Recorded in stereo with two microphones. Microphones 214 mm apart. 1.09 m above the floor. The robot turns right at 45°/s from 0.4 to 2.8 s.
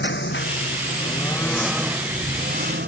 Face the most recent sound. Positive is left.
turn(degrees=-130)